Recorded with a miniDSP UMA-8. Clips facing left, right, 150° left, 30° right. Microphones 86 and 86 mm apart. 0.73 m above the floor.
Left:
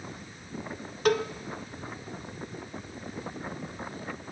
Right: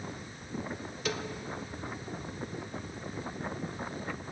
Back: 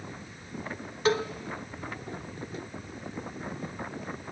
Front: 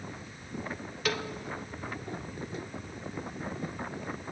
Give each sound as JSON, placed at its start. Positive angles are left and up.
{"t": 1.1, "sound": "a cowbell", "azimuth_deg": 95, "distance_m": 0.5}